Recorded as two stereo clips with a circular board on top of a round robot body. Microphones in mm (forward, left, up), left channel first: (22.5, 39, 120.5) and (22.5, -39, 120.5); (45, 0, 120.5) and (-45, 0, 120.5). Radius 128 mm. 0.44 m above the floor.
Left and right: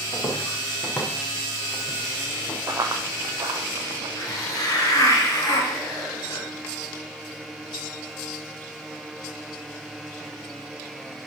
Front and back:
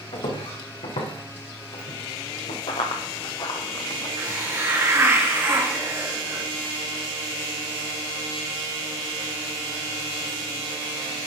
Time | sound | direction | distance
0.1 | footsteps | 30° left | 3.5 m
2.7 | running footsteps | 35° right | 0.8 m
4.2 | a hiss | 120° left | 2.5 m